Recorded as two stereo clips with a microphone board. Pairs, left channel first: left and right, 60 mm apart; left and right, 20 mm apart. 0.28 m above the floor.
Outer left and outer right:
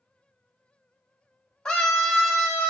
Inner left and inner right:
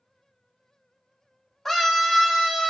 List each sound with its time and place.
1.6 s a scream: 15° left (ahead or behind), 1.0 m; by 2.7 s 20° right (ahead or behind), 1.1 m